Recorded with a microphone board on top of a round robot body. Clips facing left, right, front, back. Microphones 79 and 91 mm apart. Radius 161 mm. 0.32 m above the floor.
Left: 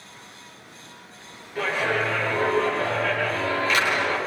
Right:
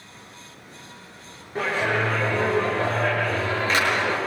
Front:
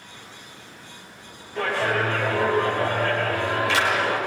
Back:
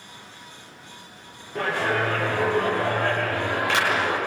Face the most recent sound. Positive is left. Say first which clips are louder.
# right 1 dB, front 1 dB
turn(degrees=-140)